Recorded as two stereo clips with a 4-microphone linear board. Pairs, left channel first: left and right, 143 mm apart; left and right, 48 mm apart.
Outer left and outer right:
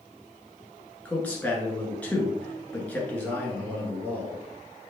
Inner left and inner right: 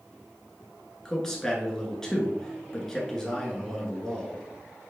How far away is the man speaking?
About 1.3 m.